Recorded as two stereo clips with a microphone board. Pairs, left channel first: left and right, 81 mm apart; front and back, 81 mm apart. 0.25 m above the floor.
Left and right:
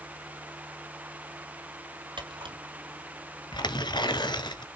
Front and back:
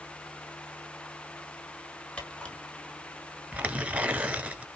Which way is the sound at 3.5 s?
110° left.